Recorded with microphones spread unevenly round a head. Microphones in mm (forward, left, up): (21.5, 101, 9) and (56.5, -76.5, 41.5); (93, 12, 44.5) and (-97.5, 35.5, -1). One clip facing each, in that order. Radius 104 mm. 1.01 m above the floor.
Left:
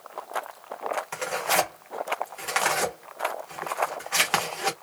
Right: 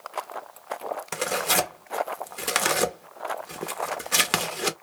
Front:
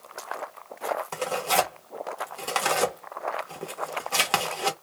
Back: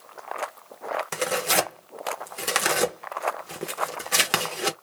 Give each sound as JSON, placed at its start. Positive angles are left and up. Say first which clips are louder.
{"t": 1.1, "sound": "tearing paper", "louder": "right 2 dB, back 2 dB", "azimuth_deg": -130, "distance_m": 0.6}